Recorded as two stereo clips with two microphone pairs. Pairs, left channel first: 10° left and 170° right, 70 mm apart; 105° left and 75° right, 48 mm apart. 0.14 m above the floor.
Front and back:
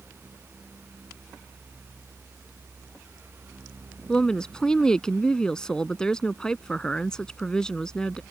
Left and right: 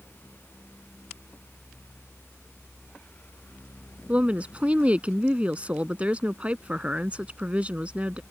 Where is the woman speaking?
60° right.